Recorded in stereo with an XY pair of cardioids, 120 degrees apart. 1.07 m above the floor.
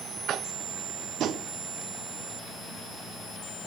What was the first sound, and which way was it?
Tapping, 60° right.